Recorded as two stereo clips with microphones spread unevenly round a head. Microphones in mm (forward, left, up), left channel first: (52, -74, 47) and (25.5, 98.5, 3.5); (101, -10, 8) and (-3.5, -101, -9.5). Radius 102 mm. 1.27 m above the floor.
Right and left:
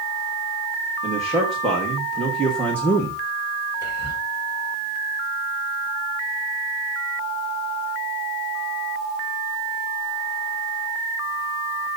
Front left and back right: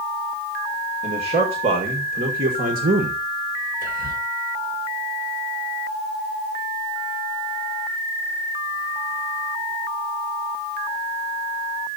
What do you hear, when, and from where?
1.0 s a man speaking: 175° right, 2.5 m; by 3.2 s 165° right, 1.2 m
3.8 s whispering: 155° right, 5.5 m